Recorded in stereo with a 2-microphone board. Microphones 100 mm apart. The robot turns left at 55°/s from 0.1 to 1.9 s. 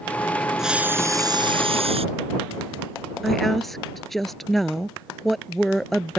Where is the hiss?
5° right; by 2.0 s 75° right.